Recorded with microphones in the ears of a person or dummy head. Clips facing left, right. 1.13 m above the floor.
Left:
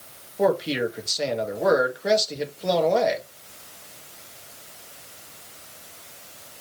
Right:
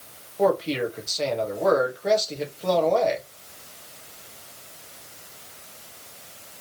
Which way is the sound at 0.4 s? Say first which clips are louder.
Even; 10° left (ahead or behind).